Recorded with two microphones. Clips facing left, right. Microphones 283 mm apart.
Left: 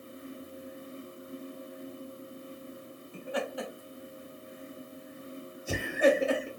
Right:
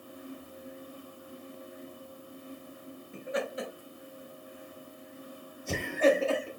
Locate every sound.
3.1 s laughter: 30° right (ahead or behind), 2 m; by 6.5 s 25° left (ahead or behind), 1.4 m